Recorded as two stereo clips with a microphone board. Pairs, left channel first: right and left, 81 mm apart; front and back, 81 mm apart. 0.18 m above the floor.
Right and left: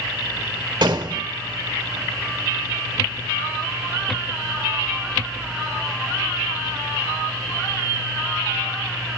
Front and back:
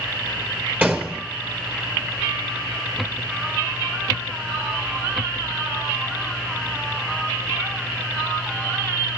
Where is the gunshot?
110° left, 2.5 m.